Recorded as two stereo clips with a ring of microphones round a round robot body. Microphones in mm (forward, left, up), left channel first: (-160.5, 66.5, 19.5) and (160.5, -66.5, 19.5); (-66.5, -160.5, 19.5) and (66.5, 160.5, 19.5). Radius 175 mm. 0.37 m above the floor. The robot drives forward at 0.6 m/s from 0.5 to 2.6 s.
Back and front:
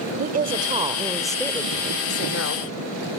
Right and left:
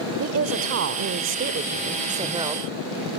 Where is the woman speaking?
35° left, 1.1 m; by 2.7 s 140° left, 1.1 m.